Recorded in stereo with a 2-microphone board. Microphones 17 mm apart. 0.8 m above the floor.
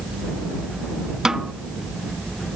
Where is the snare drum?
40° right (ahead or behind).